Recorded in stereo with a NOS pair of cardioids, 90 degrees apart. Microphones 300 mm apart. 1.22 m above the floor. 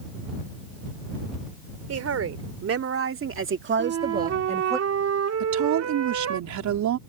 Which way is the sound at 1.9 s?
55° right.